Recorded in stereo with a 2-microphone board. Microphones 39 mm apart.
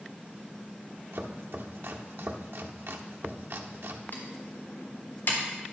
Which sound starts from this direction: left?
Typing on a keyboard, at 4.1 s.